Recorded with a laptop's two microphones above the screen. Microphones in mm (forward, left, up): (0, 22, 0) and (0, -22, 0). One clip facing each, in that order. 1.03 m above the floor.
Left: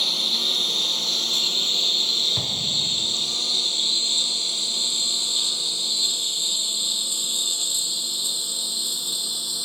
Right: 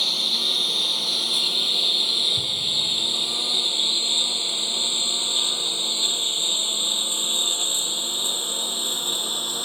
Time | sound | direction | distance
0.0 | a lawn mower | centre (ahead or behind) | ?
2.4 | an explosion | 85° left | ?